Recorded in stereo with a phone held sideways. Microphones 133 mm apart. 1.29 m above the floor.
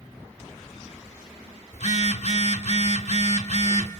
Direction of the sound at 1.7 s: 55° left (ahead or behind).